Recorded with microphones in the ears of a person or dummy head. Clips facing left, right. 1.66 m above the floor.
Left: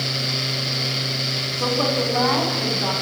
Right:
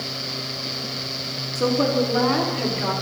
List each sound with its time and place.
1.6 s a woman speaking: 30° right (ahead or behind), 4 m; by 2.9 s 40° right (ahead or behind), 5.5 m